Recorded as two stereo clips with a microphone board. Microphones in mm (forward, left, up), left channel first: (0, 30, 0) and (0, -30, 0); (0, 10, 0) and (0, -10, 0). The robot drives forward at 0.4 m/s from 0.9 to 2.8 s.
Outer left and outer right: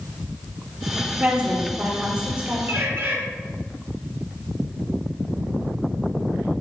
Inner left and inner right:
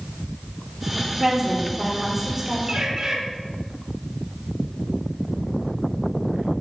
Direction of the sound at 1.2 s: 25° right (ahead or behind).